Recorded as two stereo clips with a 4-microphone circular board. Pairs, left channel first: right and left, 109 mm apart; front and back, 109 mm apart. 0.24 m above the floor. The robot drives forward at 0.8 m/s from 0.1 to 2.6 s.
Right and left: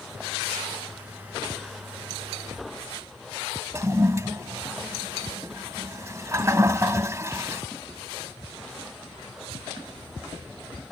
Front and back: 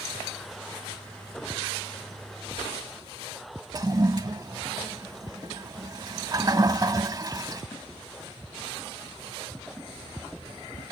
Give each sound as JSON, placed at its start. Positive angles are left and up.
{"t": 3.7, "sound": "a toilet flushing", "azimuth_deg": 140}